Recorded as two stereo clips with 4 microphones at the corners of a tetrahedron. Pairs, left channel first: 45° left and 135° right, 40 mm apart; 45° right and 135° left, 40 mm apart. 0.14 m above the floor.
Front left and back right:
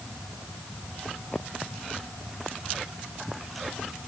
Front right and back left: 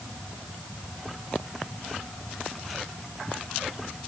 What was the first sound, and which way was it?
Only background noise.